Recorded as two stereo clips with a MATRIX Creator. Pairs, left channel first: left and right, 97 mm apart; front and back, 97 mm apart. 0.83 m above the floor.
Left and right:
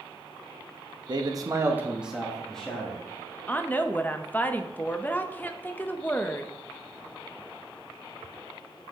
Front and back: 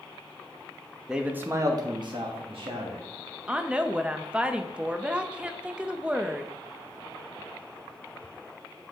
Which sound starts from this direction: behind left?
A woman speaking, at 3.5 s.